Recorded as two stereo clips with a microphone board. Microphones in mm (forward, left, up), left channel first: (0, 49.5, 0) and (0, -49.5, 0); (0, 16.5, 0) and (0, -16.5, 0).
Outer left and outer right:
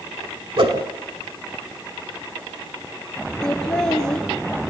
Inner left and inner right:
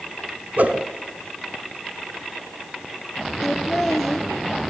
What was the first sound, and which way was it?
A whoosh, 60° right (ahead or behind).